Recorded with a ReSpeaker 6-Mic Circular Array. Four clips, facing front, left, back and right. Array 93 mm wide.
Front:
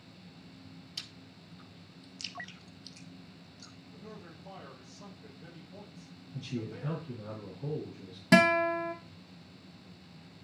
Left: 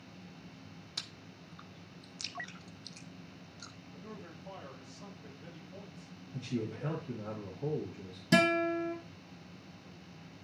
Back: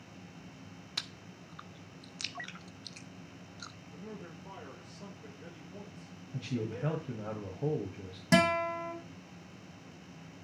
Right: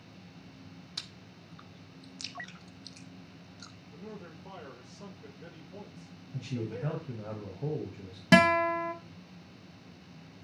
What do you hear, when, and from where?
1.0 s chewing: straight behind, 0.5 m
3.9 s a man speaking: 110° right, 5.5 m
6.3 s a man speaking: 165° right, 1.5 m
8.3 s a guitar: 70° right, 0.9 m